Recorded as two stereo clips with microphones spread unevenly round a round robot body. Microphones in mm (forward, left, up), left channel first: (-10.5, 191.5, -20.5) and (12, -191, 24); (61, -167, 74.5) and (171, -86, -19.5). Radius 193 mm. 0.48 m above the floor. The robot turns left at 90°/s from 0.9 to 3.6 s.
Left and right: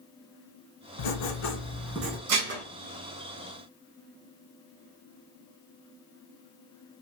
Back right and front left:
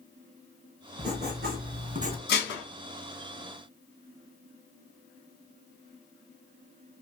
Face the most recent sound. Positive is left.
turn(degrees=110)